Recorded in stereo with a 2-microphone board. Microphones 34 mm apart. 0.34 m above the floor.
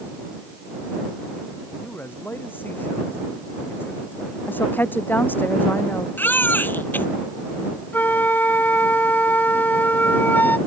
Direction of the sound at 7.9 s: 75° left (ahead or behind).